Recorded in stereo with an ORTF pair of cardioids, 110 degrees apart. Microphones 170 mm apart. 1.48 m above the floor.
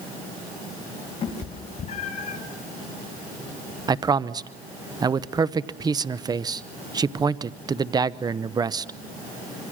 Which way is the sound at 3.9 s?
25° right.